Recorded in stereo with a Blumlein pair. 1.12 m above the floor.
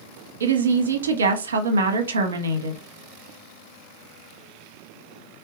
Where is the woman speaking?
65° right, 0.8 m.